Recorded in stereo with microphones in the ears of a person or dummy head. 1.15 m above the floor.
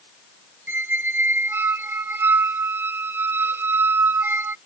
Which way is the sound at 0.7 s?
10° right (ahead or behind).